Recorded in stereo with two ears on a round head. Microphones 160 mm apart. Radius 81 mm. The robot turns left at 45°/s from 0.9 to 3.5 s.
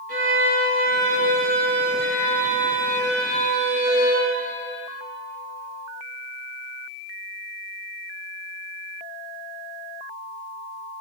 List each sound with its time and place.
0.1 s a violin: 130° right, 1.8 m; by 4.3 s 115° left, 1.8 m